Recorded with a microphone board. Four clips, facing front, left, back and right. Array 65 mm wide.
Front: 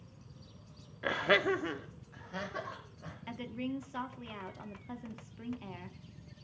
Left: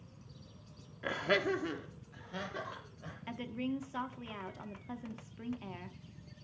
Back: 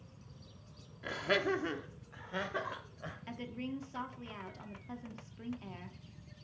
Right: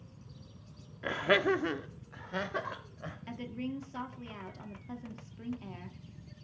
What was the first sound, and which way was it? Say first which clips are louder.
Laughter: right 4 dB, front 4 dB; 10° right.